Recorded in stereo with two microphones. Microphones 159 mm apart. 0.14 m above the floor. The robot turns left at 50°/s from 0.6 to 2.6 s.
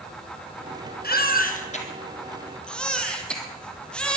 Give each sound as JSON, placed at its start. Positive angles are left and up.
{"t": 1.0, "sound": "a baby crying", "azimuth_deg": 85, "distance_m": 3.0}